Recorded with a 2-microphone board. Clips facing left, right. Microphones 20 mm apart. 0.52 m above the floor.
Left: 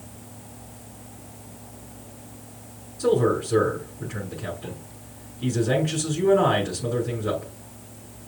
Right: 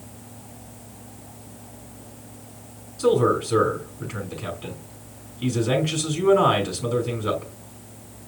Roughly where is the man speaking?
Right.